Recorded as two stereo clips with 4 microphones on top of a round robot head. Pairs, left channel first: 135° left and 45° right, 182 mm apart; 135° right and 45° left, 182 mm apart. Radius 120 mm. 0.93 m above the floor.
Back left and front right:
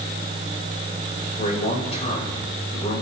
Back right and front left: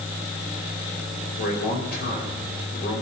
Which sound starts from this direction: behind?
A man speaking, at 1.4 s.